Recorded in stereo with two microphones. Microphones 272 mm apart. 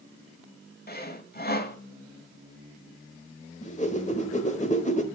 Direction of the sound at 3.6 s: 25° left (ahead or behind).